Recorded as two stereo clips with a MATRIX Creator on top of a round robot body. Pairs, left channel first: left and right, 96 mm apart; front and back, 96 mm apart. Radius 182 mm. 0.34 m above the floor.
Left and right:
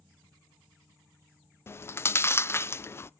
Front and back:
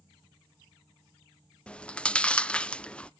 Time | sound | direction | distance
1.7 | chewing | 65° left | 0.5 m